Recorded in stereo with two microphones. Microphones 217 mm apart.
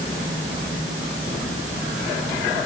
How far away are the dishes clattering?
I don't hear dishes clattering.